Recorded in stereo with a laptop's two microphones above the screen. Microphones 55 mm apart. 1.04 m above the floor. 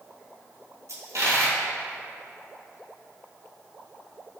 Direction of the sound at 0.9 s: 65° right (ahead or behind).